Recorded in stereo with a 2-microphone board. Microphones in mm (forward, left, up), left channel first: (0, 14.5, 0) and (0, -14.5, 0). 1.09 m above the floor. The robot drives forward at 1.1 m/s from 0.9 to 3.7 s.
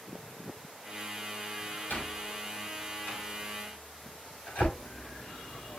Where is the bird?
65° left (ahead or behind), 2.5 m.